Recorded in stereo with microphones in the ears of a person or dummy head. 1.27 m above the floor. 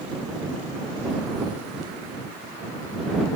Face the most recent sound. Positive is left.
No sound to turn to.